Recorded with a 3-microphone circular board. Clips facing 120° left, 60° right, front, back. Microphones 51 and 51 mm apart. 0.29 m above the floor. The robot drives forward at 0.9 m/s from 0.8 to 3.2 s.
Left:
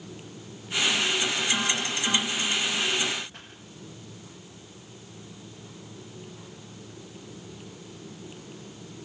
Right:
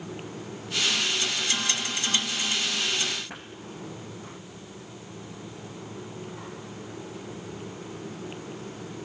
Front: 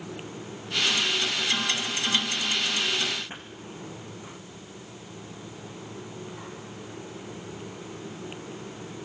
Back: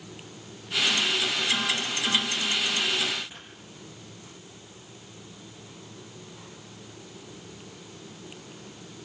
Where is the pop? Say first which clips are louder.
Right 6 dB, front 5 dB; 50° right, 4.5 m.